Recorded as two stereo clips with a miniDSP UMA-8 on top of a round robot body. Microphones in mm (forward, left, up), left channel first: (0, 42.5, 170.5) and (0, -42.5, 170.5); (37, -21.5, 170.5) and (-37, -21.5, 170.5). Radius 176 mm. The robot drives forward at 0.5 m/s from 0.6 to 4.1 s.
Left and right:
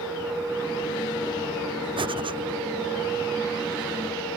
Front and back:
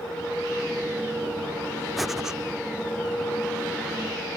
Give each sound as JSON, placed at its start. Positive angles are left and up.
{"t": 2.0, "sound": "breathing", "azimuth_deg": -90}